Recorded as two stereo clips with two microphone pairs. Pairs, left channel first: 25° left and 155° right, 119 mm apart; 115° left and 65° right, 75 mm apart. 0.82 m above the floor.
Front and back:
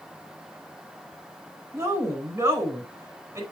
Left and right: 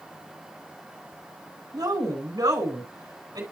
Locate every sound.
1.7 s a woman speaking: 95° right, 4 m